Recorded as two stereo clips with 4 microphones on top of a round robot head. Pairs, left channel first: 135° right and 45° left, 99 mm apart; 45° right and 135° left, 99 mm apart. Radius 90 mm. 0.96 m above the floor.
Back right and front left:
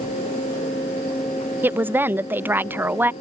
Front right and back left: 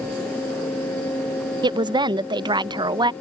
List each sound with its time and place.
1.6 s a woman speaking: 110° left